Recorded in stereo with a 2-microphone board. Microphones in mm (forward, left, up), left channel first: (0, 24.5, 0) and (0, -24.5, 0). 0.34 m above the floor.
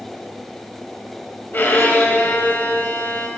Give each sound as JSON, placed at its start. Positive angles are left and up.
{"t": 1.5, "sound": "a violin", "side_deg": 45, "distance_m": 0.9}